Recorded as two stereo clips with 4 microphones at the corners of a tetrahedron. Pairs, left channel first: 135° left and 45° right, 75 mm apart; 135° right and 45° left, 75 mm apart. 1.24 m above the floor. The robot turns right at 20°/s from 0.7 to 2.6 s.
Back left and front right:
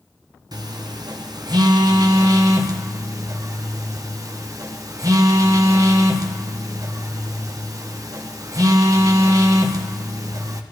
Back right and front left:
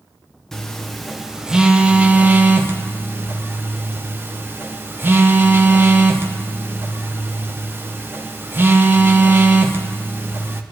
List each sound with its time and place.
0.5 s a phone buzzing: 50° right, 1.0 m; by 10.6 s 15° right, 1.0 m